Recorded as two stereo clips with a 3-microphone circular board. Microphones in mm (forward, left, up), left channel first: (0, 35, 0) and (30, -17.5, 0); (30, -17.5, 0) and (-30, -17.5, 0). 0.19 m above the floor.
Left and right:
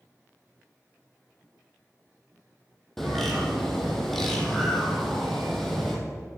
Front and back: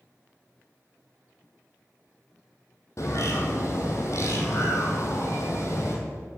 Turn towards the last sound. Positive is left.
turn(degrees=35)